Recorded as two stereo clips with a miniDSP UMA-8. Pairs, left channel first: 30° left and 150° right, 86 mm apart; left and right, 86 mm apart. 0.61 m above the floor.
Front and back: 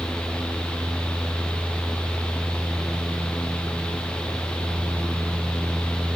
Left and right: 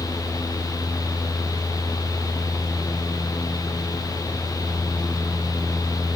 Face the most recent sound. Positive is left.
No sound to turn to.